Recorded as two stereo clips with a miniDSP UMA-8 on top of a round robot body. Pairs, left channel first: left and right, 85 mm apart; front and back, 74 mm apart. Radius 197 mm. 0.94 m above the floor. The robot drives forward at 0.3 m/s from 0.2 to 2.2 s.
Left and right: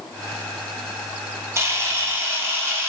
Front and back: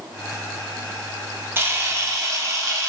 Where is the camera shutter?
130° right, 0.9 m; by 2.9 s 145° right, 1.0 m.